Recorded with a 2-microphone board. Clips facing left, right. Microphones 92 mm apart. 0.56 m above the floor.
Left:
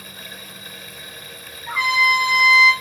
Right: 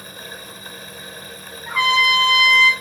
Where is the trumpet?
75° right (ahead or behind), 1.4 m.